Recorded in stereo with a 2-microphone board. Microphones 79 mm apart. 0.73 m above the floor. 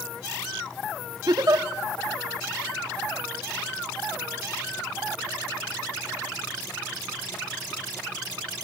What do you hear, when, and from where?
1.3 s a giggle: 55° right (ahead or behind), 1.1 m